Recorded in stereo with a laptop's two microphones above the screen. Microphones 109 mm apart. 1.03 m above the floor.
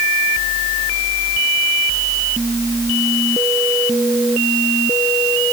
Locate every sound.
Only background noise.